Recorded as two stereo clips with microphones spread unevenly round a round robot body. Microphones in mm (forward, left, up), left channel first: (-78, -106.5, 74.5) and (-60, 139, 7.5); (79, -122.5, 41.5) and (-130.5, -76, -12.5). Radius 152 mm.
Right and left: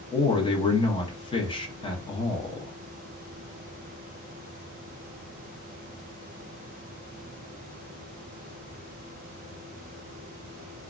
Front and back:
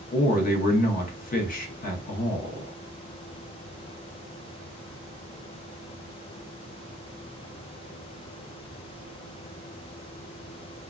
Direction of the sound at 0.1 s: 15° right.